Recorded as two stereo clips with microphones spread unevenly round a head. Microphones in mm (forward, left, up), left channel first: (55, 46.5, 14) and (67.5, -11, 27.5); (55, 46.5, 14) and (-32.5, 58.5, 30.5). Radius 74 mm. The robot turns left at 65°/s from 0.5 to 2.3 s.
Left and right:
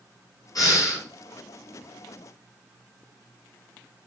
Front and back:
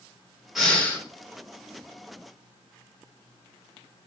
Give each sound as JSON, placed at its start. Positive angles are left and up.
{"t": 0.6, "sound": "breathing", "azimuth_deg": 85, "distance_m": 1.3}